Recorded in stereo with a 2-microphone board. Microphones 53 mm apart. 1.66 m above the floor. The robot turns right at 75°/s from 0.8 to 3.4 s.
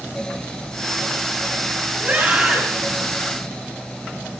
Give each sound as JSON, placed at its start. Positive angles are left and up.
{"t": 2.0, "sound": "a scream", "azimuth_deg": -40, "distance_m": 9.5}